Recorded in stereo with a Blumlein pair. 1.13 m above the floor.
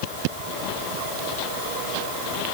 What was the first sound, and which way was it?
Only background noise.